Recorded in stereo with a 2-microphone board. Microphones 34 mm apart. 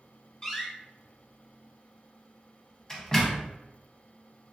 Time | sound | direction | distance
0.4 | a door slam | 15° left (ahead or behind) | 0.8 m